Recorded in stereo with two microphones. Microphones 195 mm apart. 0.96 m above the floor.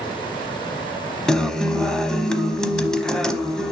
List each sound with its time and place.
1.3 s a guitar: 5° left (ahead or behind), 0.9 m